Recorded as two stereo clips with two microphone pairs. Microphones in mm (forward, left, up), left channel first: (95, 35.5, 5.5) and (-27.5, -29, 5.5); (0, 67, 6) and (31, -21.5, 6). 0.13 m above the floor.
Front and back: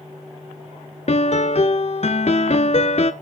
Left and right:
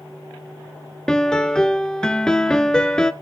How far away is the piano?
About 0.7 m.